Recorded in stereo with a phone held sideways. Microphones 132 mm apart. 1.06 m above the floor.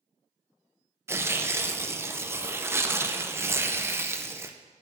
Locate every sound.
1.1 s tearing paper: 20° right (ahead or behind), 0.6 m